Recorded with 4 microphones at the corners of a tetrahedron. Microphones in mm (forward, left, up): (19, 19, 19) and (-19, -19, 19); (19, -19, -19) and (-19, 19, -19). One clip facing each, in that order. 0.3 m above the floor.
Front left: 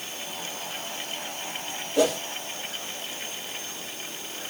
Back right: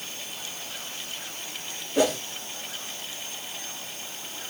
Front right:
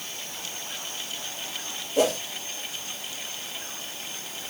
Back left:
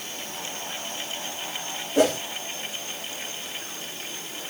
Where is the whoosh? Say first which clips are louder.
Front left 1 dB, back left 2 dB; 160° left, 2 m.